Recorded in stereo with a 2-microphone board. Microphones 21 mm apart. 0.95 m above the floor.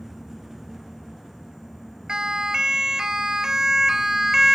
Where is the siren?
35° right (ahead or behind); by 4.6 s 20° right (ahead or behind).